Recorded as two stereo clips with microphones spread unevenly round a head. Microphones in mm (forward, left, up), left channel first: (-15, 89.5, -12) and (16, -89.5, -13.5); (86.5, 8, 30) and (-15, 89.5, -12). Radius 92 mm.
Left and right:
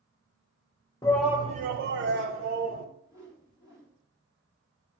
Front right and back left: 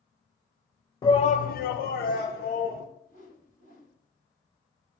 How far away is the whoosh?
About 2.5 m.